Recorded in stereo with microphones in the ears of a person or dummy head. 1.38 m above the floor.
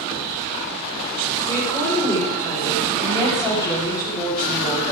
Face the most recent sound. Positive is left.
turn(degrees=30)  # may be behind; listen again after turning